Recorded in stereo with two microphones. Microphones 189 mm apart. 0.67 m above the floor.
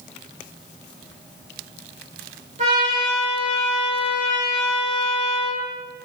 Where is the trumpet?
40° right (ahead or behind), 1.8 m.